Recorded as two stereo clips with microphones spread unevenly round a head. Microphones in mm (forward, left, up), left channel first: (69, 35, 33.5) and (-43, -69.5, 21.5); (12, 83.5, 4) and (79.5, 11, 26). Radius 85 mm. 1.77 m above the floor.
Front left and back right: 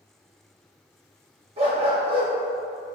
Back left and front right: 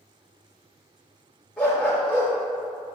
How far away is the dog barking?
About 1.3 m.